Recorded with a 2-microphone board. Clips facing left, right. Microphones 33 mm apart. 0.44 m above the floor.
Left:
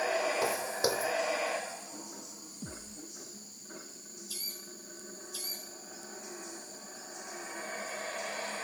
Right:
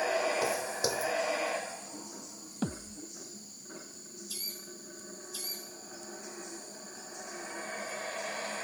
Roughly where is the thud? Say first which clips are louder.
Right 9 dB; right.